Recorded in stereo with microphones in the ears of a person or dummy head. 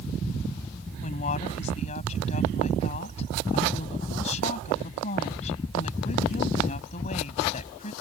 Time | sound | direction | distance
1.0 | a woman speaking | 35° left (ahead or behind) | ?